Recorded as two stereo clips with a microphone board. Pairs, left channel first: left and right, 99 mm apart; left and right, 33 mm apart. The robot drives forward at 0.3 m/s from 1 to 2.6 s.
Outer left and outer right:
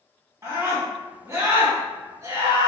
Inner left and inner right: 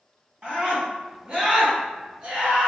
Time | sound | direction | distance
0.4 | a scream | 35° right (ahead or behind) | 1.8 m